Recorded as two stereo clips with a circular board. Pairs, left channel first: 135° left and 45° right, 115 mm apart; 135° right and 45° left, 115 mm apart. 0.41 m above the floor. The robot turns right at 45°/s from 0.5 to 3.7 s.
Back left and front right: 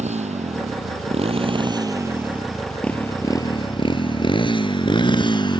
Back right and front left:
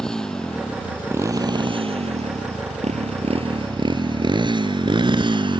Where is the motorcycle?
50° right; by 5.6 s 90° left.